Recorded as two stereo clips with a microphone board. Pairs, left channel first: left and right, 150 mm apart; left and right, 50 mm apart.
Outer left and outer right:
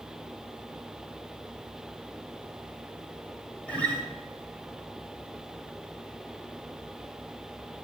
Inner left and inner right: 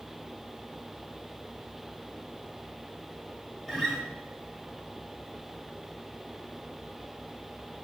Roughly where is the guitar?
Centre.